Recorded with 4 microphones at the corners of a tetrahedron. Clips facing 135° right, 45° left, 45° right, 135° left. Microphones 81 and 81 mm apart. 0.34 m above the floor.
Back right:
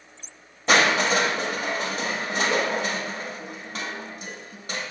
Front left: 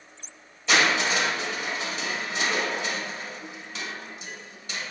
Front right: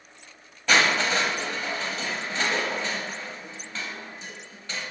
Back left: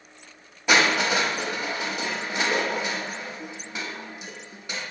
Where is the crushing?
155° right, 1.1 m.